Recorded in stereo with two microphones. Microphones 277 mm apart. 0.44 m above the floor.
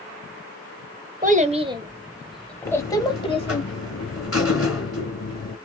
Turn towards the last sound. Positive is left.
turn(degrees=55)  # may be behind; listen again after turning